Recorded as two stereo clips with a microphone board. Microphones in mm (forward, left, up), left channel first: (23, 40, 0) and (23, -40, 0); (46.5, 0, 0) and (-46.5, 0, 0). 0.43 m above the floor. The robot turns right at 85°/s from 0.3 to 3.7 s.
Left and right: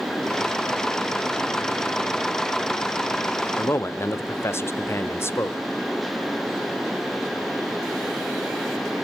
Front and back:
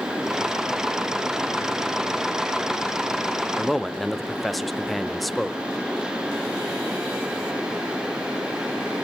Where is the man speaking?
80° left, 0.9 m; by 5.6 s 90° left, 0.9 m.